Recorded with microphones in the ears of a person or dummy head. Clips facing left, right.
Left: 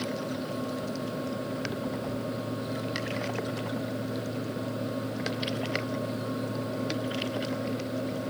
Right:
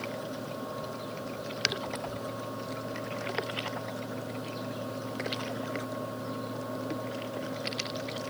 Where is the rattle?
No rattle in this recording.